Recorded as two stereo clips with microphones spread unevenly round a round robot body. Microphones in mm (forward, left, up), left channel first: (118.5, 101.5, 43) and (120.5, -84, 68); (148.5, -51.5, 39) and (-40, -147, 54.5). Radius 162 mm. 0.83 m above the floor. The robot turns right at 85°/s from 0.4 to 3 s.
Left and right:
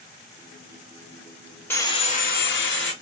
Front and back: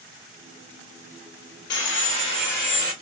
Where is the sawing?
10° left, 0.8 m; by 2.9 s 115° left, 0.8 m.